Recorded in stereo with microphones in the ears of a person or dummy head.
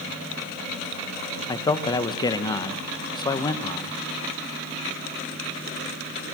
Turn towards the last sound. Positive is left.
turn(degrees=25)  # may be behind; listen again after turning